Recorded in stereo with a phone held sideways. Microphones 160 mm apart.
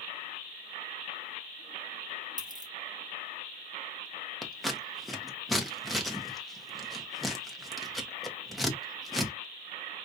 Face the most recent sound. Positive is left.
turn(degrees=0)  # may be behind; listen again after turning